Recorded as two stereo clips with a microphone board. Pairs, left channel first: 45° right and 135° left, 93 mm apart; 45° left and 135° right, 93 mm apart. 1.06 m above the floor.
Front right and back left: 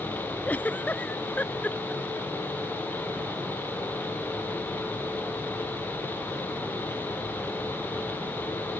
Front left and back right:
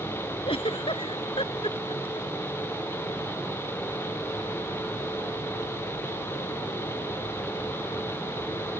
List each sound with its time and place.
0.5 s a giggle: 30° left